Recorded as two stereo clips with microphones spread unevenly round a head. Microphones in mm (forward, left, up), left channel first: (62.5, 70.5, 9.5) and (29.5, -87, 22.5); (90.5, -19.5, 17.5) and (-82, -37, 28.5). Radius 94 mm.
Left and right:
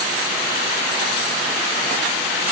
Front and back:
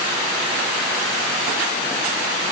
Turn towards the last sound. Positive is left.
No sound to turn to.